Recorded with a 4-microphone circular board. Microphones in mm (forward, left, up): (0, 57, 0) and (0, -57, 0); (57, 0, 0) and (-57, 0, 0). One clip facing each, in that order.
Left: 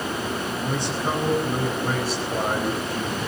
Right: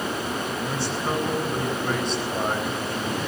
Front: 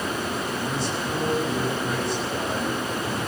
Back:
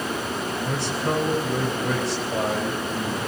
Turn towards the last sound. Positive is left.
turn(degrees=-175)